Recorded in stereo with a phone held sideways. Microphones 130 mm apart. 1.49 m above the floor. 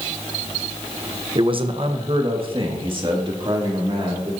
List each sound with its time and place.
1.4 s a man speaking: 40° right (ahead or behind), 1.0 m